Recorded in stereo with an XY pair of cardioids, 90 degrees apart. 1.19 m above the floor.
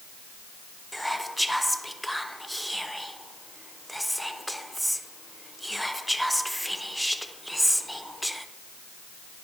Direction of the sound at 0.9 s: Straight ahead.